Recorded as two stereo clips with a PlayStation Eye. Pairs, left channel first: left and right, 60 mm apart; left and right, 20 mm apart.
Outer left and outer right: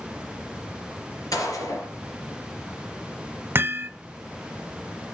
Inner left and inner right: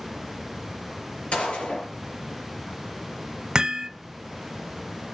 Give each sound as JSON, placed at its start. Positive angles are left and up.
{"t": 1.3, "sound": "a gunshot", "side_deg": 80, "distance_m": 4.0}
{"t": 3.5, "sound": "hammering", "side_deg": -40, "distance_m": 0.9}